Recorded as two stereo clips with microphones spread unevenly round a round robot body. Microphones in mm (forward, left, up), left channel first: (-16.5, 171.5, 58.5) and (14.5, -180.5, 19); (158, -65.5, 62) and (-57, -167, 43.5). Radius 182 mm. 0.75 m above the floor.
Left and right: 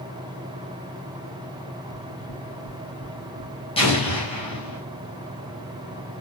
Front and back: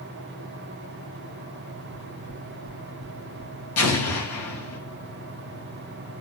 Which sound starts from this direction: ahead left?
Knocking, at 1.9 s.